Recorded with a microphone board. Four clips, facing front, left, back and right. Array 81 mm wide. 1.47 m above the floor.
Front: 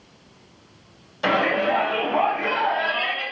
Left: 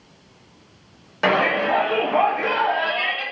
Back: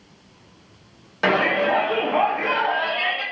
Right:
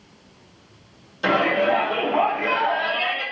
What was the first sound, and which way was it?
A shout, 130° left.